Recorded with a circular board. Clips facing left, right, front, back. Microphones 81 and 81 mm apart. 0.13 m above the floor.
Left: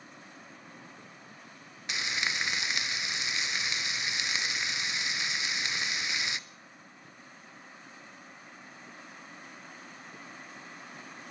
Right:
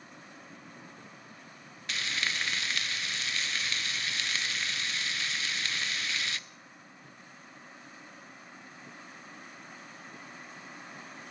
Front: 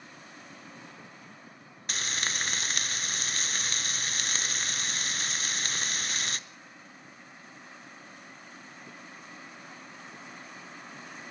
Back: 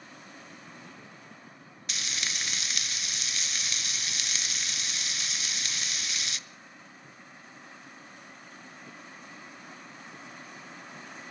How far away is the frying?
About 0.6 m.